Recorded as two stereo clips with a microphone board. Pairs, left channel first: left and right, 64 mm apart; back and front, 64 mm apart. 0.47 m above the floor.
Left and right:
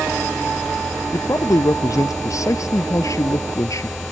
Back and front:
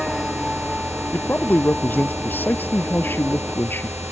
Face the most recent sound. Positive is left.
turn(degrees=125)